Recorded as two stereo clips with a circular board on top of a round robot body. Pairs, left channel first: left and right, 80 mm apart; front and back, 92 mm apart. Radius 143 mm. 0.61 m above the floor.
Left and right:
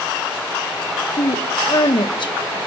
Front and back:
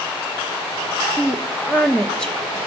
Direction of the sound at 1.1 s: 80° left.